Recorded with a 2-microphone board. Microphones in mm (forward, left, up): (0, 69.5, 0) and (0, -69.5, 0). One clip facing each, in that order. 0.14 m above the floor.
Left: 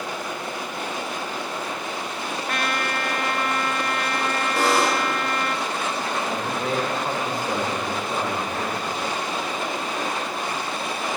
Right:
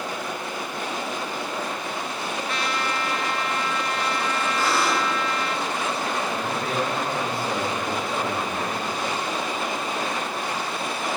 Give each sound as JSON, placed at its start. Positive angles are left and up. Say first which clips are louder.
{"t": 2.5, "sound": "a trumpet", "louder": "left 2 dB", "side_deg": 55, "distance_m": 0.8}
{"t": 4.6, "sound": "a buzzer", "louder": "left 4 dB", "side_deg": 85, "distance_m": 5.0}
{"t": 6.3, "sound": "a man speaking", "louder": "left 1 dB", "side_deg": 20, "distance_m": 8.5}